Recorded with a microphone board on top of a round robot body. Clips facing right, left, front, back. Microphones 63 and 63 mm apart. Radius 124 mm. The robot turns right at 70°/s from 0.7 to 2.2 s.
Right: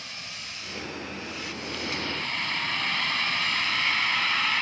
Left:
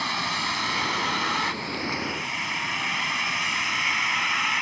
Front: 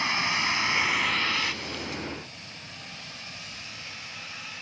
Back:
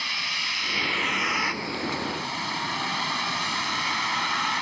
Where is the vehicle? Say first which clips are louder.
Left 14 dB, front 4 dB; 65° left; by 4.6 s 170° left.